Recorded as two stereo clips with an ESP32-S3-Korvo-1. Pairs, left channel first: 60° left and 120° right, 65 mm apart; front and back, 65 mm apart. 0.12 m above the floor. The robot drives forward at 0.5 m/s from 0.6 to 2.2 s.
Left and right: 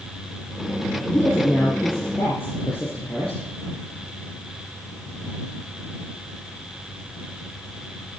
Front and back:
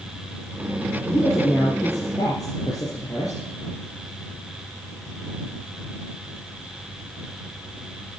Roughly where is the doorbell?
No doorbell in this recording.